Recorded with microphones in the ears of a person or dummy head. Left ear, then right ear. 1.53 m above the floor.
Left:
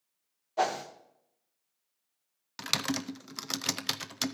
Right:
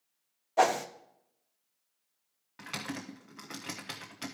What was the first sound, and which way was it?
A whoosh, 15° right (ahead or behind).